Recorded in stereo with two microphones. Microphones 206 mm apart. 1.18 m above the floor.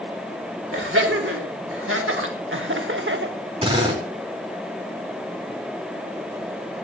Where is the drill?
30° right (ahead or behind), 4.5 m.